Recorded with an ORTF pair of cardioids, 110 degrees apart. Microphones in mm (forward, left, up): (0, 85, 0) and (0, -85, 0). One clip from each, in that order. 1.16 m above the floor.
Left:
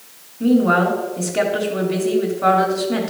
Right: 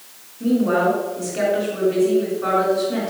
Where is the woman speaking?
40° left, 3 m.